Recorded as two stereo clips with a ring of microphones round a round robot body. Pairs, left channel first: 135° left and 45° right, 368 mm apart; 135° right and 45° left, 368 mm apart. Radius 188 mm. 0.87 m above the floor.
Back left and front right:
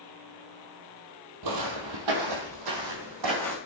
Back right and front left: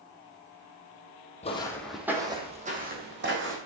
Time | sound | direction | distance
1.4 | footsteps | 65° right | 1.6 m